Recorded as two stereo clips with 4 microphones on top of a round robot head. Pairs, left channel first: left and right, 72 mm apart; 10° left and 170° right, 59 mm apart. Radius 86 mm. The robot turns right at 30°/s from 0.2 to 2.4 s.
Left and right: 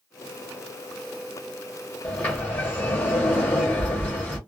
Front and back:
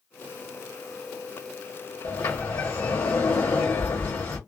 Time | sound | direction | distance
2.0 | a sliding door | 25° left | 1.1 m